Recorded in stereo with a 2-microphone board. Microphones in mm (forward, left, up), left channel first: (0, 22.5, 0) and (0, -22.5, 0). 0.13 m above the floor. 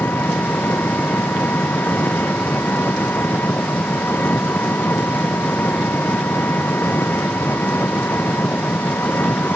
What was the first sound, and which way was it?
An engine running, 55° left (ahead or behind).